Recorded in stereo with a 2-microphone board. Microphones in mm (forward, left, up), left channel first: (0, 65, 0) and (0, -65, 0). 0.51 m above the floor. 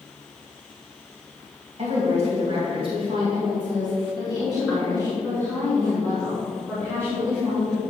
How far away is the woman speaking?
About 3.5 m.